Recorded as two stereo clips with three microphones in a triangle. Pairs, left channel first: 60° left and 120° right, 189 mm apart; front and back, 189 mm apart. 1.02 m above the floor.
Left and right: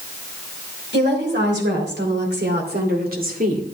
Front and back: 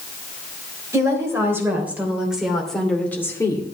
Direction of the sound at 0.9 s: 105° right.